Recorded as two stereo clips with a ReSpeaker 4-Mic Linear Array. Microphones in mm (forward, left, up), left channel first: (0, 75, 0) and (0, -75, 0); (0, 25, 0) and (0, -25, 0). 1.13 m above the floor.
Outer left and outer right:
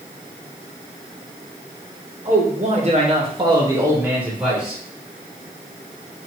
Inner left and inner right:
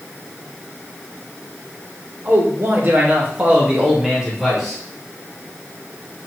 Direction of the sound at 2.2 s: 50° right (ahead or behind).